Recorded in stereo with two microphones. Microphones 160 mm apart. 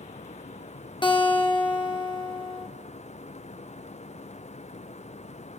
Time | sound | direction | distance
1.0 | a guitar | 30° left (ahead or behind) | 1.3 m